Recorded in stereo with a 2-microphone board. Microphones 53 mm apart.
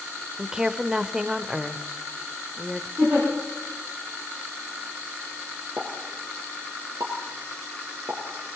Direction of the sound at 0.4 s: 10° right (ahead or behind).